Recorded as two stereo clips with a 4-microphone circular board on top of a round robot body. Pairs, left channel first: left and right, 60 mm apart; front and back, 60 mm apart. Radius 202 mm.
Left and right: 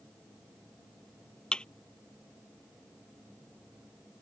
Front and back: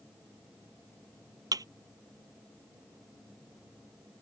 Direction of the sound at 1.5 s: 165° left.